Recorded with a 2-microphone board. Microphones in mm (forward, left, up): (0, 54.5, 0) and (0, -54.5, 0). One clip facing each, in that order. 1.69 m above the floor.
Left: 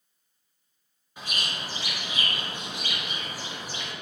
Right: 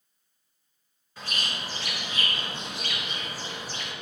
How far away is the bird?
About 2.5 m.